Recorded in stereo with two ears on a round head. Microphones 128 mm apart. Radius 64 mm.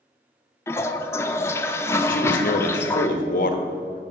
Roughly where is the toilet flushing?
Centre.